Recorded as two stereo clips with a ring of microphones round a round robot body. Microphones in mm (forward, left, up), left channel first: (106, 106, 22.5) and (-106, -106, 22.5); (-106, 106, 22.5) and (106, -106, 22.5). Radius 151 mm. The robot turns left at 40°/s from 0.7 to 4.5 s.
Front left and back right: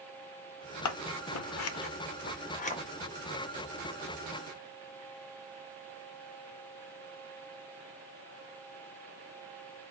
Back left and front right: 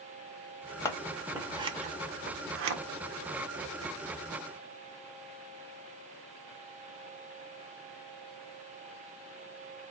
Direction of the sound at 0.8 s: 55° left.